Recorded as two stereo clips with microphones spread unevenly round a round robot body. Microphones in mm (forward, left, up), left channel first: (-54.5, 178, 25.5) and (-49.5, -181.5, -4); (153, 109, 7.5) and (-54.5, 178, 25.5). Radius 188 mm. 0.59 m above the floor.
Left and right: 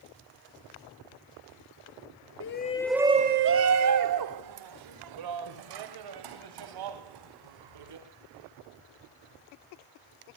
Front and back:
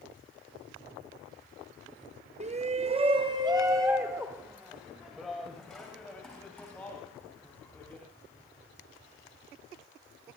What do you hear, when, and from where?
2.4 s a shout: 120° left, 0.7 m; by 8.1 s 105° right, 4.5 m